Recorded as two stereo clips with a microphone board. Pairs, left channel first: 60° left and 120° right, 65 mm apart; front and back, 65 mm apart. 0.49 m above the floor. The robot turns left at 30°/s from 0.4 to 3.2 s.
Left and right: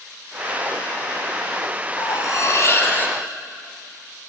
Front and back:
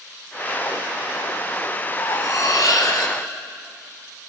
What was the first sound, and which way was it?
Cutlery clinking, 35° left.